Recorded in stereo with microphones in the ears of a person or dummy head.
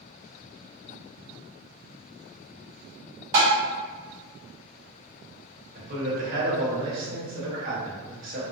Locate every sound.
3.3 s tapping: 35° right (ahead or behind), 1.6 m
5.8 s a man speaking: 45° right (ahead or behind), 1.1 m